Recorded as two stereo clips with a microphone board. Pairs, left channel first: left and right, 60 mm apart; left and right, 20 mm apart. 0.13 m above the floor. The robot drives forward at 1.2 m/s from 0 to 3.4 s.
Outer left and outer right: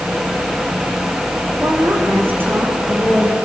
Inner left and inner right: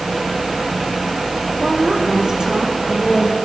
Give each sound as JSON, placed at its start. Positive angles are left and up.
{"t": 1.6, "sound": "a woman speaking", "side_deg": -40, "distance_m": 6.0}